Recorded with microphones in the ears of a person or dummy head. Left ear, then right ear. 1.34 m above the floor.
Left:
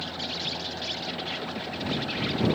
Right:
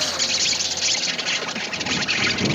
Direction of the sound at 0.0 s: 60° right (ahead or behind).